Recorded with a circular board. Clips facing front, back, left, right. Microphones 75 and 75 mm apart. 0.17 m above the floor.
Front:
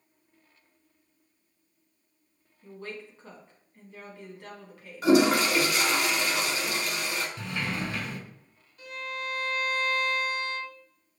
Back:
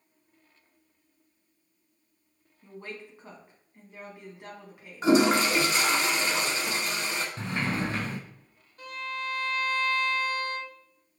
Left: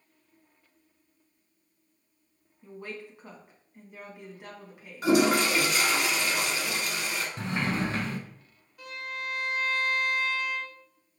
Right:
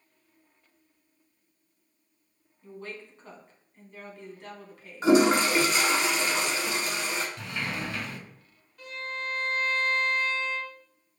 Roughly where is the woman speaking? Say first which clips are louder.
Front 1 dB, left 1 dB; behind left.